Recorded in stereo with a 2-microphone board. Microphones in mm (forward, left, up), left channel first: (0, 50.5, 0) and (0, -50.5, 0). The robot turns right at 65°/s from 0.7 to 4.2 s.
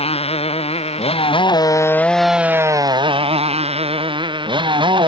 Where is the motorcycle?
80° left; by 5.1 s 55° right.